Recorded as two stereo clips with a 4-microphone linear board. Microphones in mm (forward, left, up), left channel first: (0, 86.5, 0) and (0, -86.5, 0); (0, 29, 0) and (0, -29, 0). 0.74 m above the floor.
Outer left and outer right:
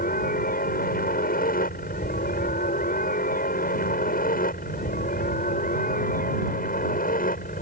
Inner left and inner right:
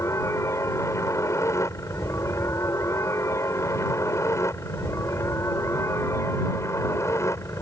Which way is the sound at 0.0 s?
55° left (ahead or behind).